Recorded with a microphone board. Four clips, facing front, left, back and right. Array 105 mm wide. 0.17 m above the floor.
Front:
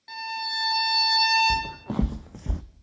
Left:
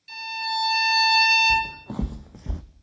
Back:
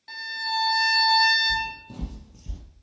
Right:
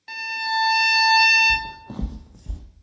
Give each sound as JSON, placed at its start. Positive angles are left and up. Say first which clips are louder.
{"t": 0.1, "sound": "a violin", "louder": "right 3 dB, back 2 dB", "azimuth_deg": -95, "distance_m": 0.9}
{"t": 1.5, "sound": "footsteps", "louder": "left 3 dB, front 4 dB", "azimuth_deg": 5, "distance_m": 0.9}